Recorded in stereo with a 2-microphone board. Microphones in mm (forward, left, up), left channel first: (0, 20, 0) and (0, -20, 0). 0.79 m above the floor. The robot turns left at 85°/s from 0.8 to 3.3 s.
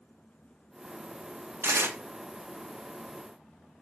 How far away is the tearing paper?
About 0.6 m.